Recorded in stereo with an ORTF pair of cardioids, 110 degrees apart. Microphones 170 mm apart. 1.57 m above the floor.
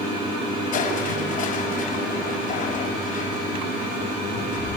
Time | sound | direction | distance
0.7 | crushing | 55° left | 5.5 m